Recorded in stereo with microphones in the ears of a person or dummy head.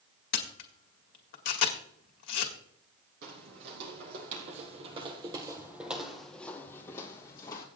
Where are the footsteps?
65° right (ahead or behind), 2.5 m; by 7.7 s 30° left (ahead or behind), 3 m.